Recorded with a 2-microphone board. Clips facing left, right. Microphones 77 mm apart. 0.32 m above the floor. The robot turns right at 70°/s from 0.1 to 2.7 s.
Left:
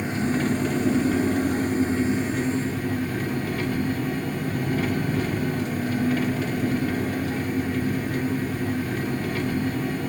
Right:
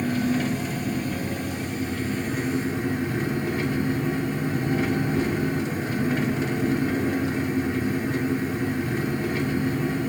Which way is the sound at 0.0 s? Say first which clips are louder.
Right 1 dB; 25° left.